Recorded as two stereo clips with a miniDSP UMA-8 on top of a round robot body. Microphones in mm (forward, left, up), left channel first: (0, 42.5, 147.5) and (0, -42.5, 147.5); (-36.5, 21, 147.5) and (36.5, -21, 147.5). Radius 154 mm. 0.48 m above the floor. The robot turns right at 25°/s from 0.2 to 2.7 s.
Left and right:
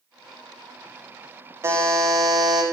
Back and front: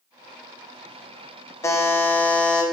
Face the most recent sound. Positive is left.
turn(degrees=-125)